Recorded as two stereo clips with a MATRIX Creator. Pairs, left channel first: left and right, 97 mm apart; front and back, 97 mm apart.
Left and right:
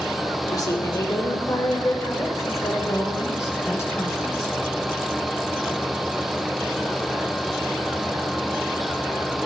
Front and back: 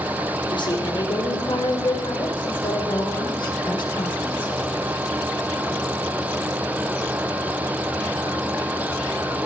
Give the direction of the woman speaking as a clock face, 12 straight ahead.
11 o'clock.